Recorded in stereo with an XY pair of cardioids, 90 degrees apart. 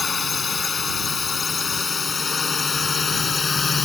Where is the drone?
40° left.